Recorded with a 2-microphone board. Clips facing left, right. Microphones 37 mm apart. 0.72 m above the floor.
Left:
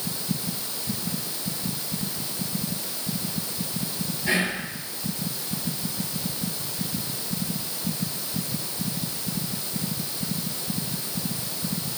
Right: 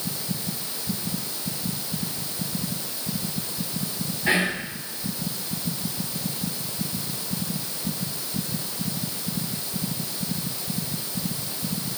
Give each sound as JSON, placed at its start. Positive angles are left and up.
{"t": 4.3, "sound": "whispering", "side_deg": -35, "distance_m": 2.5}